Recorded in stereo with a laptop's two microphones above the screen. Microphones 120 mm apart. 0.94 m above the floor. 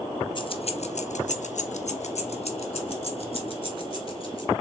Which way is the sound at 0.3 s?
40° left (ahead or behind).